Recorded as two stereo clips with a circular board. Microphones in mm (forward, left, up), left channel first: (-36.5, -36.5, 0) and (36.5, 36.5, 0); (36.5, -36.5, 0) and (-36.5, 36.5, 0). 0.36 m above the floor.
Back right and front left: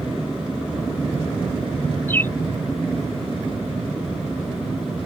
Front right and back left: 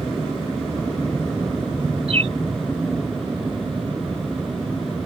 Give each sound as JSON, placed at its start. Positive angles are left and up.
{"t": 2.1, "sound": "a bird", "azimuth_deg": 155}